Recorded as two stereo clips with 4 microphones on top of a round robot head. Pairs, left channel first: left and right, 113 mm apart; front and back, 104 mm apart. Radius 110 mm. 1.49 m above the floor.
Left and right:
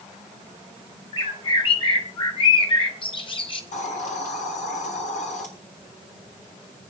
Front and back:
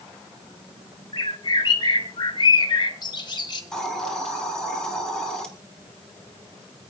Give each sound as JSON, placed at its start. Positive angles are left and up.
{"t": 1.1, "sound": "a bird", "azimuth_deg": 45, "distance_m": 2.5}
{"t": 3.7, "sound": "a hiss", "azimuth_deg": 85, "distance_m": 4.5}